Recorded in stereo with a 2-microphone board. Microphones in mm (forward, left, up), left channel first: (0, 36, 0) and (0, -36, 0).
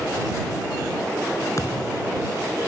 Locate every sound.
1.6 s a thud: 50° left (ahead or behind)